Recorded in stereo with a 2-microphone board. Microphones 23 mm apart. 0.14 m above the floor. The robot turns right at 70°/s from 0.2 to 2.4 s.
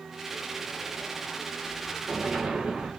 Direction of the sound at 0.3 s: 85° left.